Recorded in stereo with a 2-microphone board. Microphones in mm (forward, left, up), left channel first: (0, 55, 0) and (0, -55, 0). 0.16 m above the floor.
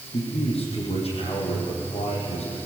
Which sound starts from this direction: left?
A man speaking, at 0.1 s.